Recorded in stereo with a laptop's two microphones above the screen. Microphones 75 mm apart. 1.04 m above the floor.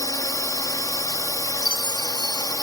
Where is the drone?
55° left (ahead or behind).